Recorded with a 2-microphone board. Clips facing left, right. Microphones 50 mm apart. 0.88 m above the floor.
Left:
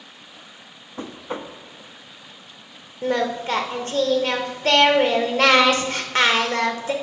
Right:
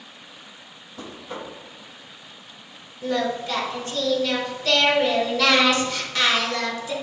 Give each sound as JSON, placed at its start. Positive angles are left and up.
{"t": 1.0, "sound": "knocking", "side_deg": 30, "distance_m": 0.6}
{"t": 3.0, "sound": "singing", "side_deg": 40, "distance_m": 0.8}